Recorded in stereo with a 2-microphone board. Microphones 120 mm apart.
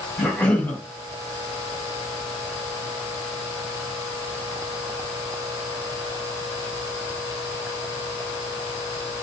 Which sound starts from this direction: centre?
A cough, at 0.2 s.